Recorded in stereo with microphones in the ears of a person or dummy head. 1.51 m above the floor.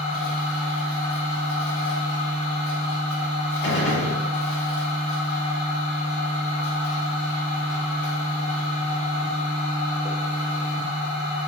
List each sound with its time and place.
0.0 s a machine running: 60° left (ahead or behind), 1.4 m
3.6 s a gunshot: 65° left (ahead or behind), 1.0 m